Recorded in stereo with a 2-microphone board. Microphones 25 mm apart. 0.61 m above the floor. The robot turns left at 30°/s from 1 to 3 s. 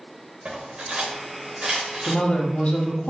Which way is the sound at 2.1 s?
40° left (ahead or behind).